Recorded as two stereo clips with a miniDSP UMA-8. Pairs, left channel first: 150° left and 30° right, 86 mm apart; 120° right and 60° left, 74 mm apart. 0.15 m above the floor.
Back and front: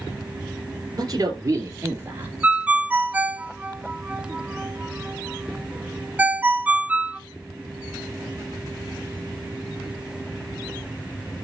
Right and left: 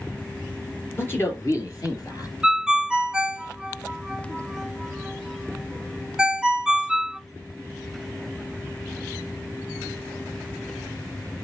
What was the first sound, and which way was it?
A man speaking, 65° right.